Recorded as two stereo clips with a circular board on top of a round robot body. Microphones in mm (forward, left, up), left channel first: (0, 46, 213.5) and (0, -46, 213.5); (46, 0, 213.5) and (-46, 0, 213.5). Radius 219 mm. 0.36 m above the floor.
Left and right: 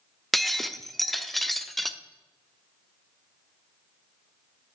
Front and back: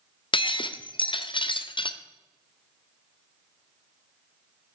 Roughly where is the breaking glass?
Ahead.